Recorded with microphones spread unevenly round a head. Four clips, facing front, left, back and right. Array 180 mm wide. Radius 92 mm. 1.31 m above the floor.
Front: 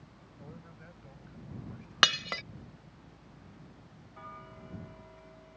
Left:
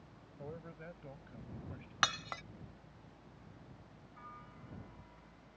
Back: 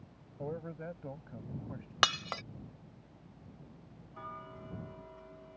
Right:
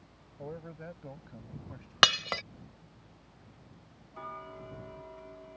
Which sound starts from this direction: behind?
A man speaking, at 0.4 s.